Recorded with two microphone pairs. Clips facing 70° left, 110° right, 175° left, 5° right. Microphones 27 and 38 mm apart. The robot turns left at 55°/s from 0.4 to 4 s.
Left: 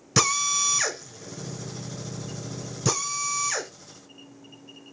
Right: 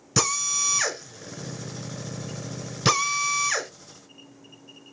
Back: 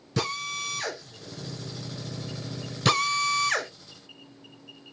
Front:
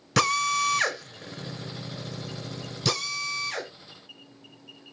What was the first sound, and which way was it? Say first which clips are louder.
A drill: left 2 dB, front 7 dB; 10° right.